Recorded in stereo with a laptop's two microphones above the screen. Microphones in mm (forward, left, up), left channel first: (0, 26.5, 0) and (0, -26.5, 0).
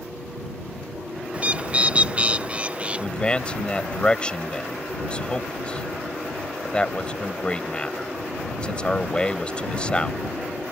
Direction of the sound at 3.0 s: 20° left (ahead or behind).